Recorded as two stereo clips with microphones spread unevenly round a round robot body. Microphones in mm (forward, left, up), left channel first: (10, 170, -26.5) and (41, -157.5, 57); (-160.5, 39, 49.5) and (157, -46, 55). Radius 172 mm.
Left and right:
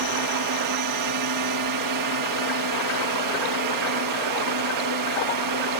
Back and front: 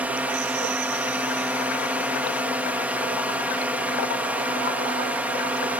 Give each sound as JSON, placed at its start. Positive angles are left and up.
{"t": 0.0, "sound": "a drone", "azimuth_deg": -100}